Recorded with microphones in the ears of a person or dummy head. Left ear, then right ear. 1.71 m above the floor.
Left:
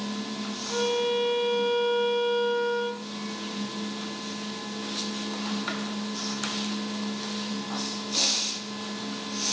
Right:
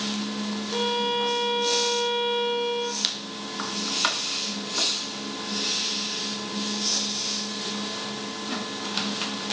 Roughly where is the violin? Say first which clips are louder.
Even; left.